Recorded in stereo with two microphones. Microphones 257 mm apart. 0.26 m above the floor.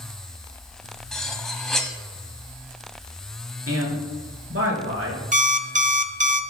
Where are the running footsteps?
No running footsteps in this recording.